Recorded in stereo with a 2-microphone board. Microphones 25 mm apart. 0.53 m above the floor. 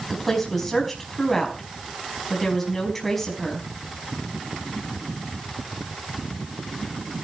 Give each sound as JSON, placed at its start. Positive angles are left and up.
{"t": 0.1, "sound": "a woman speaking", "side_deg": 5, "distance_m": 4.5}